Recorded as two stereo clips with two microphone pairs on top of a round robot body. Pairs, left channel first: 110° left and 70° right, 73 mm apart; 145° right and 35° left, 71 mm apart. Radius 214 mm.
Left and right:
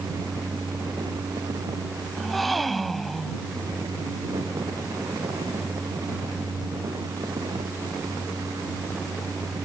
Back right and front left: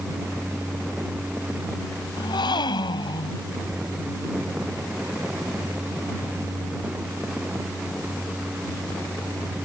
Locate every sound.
2.2 s a gasp: 160° right